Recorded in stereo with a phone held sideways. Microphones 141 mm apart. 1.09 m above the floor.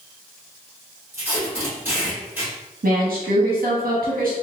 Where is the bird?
No bird in this recording.